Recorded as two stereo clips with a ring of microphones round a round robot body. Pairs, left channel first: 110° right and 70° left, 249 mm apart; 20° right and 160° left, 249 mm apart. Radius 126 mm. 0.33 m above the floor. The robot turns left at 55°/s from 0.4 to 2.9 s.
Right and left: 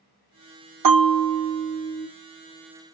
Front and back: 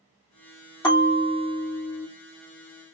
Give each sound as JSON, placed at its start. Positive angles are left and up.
{"t": 0.8, "sound": "a bell", "azimuth_deg": 50, "distance_m": 2.5}